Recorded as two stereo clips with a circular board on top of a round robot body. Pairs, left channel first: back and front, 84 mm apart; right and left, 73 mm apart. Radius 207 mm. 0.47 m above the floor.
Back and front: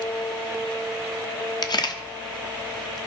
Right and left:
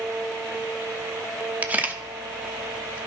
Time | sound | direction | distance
1.6 | a camera shutter | 155° left | 1.1 m